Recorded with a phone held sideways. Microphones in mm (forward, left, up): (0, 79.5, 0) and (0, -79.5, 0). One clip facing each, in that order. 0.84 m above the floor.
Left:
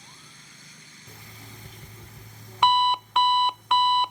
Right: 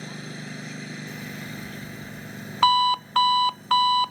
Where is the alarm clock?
Centre (ahead or behind).